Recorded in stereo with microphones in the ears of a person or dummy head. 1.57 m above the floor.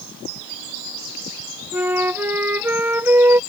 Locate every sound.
1.7 s a flute: 10° right (ahead or behind)